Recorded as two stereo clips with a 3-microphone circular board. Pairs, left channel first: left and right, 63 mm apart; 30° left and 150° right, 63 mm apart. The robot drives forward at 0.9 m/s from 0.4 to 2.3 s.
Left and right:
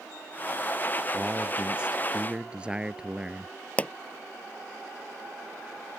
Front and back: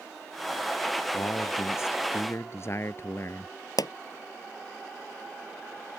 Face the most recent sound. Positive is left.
turn(degrees=25)